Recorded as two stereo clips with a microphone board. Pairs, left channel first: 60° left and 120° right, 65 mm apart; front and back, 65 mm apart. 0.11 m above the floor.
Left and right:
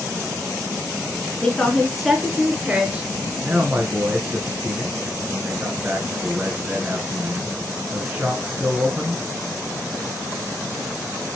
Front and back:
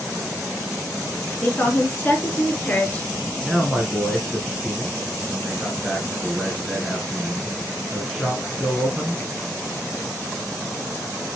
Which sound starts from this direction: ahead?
A woman speaking, at 1.4 s.